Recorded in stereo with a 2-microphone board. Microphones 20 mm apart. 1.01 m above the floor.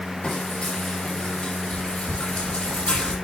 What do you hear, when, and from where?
0.2 s frying: 80° left, 8 m